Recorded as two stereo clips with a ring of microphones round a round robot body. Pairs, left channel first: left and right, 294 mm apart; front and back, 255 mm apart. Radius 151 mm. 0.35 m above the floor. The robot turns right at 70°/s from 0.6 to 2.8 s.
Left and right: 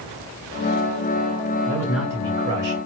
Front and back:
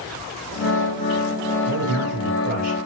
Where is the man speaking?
160° left, 2 m; by 2.8 s 125° right, 2 m.